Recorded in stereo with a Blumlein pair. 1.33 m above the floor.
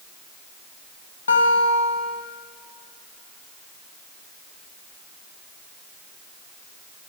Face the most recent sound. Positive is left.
turn(degrees=70)